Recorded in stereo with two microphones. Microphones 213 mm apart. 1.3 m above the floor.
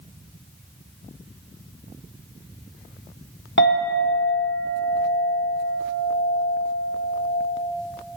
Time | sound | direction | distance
3.6 | a clink | 60° left (ahead or behind) | 0.9 m